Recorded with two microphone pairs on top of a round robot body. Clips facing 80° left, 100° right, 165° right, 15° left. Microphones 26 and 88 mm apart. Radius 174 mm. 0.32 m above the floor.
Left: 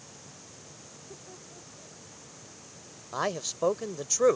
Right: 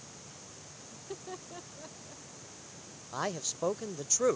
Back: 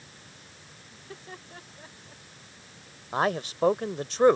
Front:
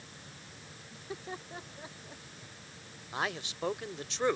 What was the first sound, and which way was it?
Laughter, 60° right.